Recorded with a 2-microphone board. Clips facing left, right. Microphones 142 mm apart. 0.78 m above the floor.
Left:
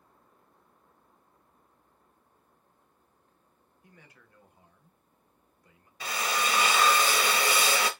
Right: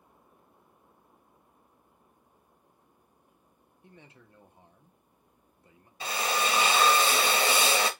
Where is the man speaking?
25° right (ahead or behind), 0.6 m.